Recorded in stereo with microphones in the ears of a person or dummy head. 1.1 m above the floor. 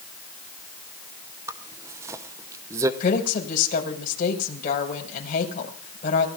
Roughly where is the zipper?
Centre.